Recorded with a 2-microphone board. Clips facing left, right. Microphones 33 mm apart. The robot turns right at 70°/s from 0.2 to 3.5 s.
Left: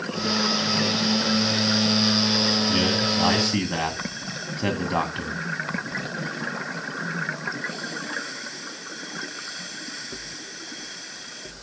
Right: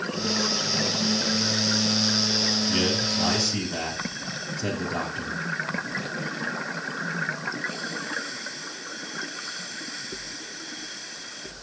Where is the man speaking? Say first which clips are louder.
Left 3 dB; 10° left, 1.9 m; by 5.4 s 65° left, 1.9 m.